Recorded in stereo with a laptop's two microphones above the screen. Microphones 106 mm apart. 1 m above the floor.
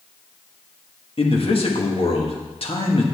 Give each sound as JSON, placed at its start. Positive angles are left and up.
{"t": 1.2, "sound": "a man speaking", "side_deg": 60, "distance_m": 1.5}